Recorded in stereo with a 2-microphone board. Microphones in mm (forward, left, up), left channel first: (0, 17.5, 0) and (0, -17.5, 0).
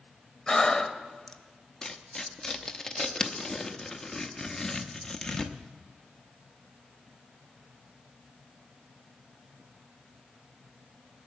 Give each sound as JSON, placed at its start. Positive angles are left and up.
{"t": 0.5, "sound": "breathing", "side_deg": 15, "distance_m": 0.7}
{"t": 1.8, "sound": "tearing paper", "side_deg": 15, "distance_m": 0.8}